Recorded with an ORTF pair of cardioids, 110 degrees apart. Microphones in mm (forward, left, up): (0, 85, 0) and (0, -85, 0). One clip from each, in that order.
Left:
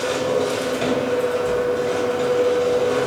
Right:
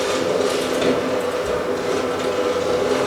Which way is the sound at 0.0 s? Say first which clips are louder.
Right 1 dB; straight ahead.